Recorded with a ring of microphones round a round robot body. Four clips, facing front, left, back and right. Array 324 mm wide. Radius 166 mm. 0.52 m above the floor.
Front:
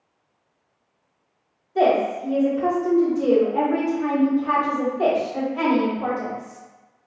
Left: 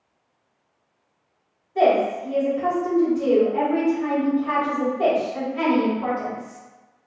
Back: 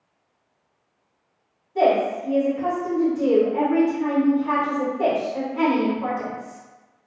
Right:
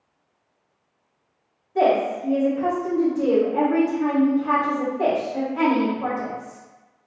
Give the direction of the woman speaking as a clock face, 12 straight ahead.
2 o'clock.